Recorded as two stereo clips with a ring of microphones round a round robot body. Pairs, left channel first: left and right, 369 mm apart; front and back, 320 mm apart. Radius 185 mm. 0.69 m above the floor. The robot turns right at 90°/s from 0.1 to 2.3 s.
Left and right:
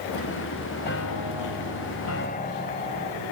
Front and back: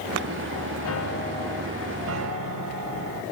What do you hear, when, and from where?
0.8 s a piano: 25° left; by 3.2 s 155° left